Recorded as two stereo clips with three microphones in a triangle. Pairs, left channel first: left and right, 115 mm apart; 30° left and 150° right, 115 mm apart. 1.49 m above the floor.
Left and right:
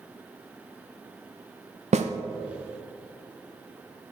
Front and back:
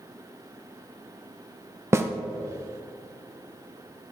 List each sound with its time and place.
1.9 s a snare drum: 80° right, 0.6 m